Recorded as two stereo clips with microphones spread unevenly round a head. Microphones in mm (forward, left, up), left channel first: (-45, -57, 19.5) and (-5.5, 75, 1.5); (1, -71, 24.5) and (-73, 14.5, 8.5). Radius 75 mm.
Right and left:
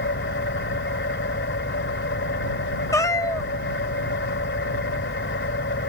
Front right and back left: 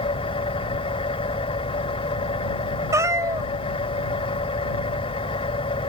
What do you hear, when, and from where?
0.0 s an engine running: 90° right
2.9 s a cat meowing: 165° right